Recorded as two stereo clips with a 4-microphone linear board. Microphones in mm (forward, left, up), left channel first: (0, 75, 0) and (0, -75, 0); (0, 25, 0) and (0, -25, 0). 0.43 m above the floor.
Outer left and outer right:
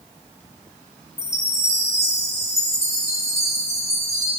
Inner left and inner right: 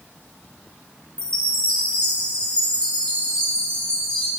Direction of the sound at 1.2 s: 20° left (ahead or behind).